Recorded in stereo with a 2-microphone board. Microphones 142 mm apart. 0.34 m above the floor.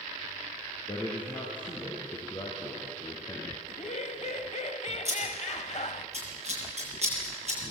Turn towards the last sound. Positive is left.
turn(degrees=-50)  # may be behind; listen again after turning